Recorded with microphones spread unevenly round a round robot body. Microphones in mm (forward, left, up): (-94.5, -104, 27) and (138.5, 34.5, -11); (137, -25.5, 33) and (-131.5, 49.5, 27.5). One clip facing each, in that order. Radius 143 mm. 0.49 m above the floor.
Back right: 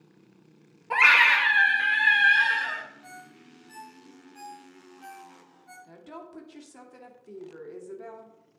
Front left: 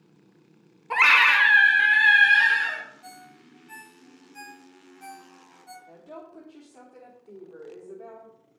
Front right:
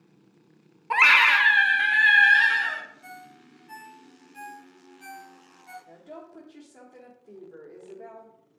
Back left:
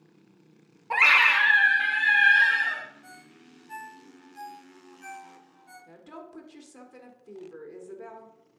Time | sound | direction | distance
0.9 | a scream | 10° right | 0.9 m
3.0 | a ringtone | 15° left | 1.6 m
5.9 | a woman speaking | 160° right | 1.2 m